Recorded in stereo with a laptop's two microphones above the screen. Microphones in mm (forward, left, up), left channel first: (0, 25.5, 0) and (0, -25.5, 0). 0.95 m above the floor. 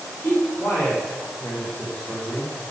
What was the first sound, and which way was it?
A man speaking, 50° left (ahead or behind).